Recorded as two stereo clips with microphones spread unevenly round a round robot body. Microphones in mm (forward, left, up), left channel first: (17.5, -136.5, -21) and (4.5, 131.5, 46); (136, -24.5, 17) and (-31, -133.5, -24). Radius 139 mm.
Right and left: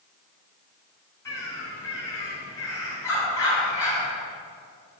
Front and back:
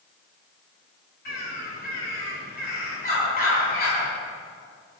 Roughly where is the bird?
Ahead.